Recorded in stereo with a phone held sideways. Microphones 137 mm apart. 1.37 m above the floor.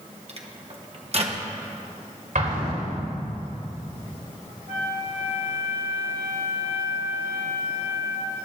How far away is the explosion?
About 4 m.